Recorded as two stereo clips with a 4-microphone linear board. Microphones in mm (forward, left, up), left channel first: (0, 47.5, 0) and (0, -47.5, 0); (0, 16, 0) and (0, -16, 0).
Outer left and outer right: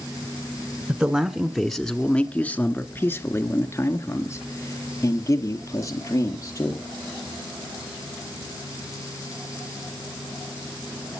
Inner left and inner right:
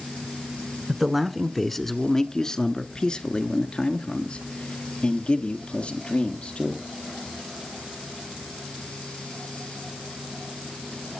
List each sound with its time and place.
0.9 s a man speaking: 10° right (ahead or behind), 1.1 m; by 6.8 s 35° left (ahead or behind), 3.5 m